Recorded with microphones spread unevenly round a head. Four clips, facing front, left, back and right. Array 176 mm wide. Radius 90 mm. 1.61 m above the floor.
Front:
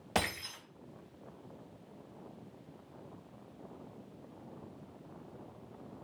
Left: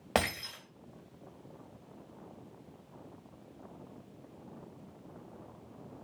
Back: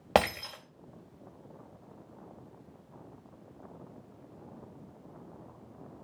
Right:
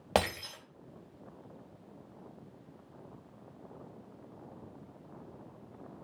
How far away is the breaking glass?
About 3 m.